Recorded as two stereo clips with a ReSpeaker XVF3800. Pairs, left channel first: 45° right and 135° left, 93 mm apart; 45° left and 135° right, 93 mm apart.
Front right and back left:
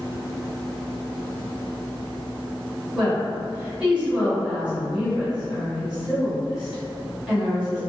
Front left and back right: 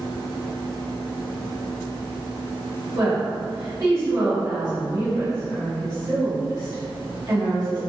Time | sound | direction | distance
3.0 | a woman speaking | 145° right | 1.9 m